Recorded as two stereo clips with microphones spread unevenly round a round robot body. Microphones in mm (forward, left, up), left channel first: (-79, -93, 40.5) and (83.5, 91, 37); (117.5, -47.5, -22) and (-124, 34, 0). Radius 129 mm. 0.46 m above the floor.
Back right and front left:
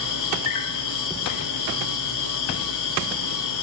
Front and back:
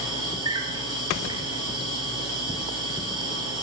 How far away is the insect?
About 3 m.